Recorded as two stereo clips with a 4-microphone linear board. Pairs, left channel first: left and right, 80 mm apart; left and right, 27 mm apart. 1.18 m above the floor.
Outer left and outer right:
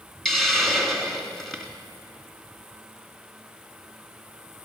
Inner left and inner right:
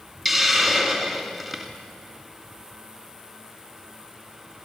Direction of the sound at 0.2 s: 5° left (ahead or behind).